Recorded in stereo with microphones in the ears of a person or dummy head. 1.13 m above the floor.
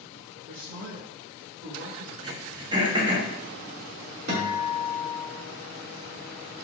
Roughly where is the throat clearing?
Right.